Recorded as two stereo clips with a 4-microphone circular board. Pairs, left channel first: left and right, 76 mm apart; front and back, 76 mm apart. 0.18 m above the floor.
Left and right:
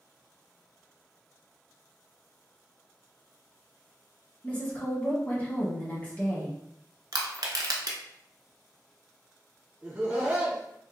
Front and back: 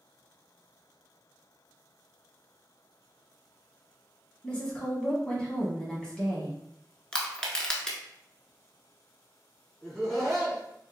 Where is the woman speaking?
60° left, 1.2 m.